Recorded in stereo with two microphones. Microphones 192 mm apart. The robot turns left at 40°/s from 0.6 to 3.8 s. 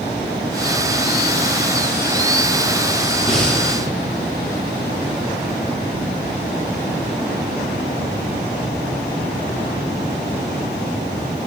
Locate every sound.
3.3 s breathing: centre (ahead or behind), 1.3 m; by 3.6 s 15° left (ahead or behind), 1.3 m